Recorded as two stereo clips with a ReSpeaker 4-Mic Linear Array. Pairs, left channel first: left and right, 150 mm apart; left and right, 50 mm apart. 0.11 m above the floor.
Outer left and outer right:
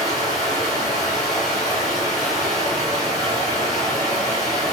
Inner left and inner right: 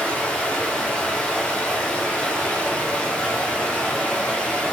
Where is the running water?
25° left (ahead or behind), 2.5 m.